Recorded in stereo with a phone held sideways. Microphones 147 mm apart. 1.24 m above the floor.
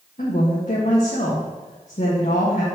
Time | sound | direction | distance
0.2 | a woman speaking | 55° left (ahead or behind) | 1.6 m